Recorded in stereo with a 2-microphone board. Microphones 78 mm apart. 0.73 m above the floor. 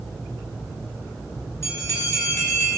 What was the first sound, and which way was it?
A bell, 40° left (ahead or behind).